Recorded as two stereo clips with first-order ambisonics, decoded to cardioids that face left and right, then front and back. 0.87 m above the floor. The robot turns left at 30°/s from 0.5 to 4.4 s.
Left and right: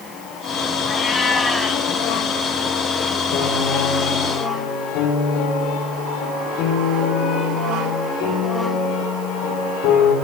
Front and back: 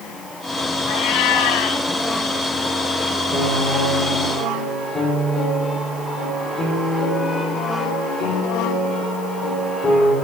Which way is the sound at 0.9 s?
20° left.